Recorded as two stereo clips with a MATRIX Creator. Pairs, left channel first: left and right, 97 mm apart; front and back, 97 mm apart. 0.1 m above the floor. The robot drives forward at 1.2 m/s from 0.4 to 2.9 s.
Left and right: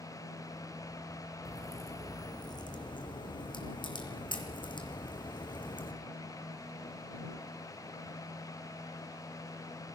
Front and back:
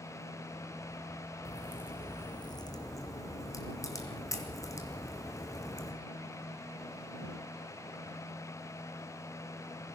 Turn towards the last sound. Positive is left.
turn(degrees=55)